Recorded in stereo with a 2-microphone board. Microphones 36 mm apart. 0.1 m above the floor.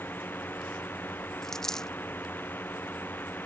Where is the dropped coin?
10° left (ahead or behind).